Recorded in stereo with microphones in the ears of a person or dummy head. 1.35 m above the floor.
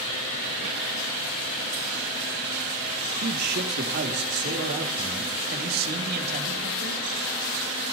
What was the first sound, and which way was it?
A man speaking, 50° right (ahead or behind).